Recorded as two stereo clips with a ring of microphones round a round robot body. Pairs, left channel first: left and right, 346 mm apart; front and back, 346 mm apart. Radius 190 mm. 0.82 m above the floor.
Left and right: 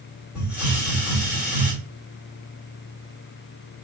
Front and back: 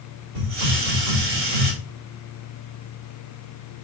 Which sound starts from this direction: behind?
A hiss, at 0.3 s.